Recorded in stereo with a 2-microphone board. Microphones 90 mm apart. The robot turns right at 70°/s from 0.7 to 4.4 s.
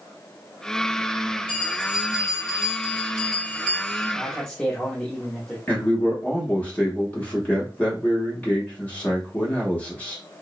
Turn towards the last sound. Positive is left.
turn(degrees=15)  # may be behind; listen again after turning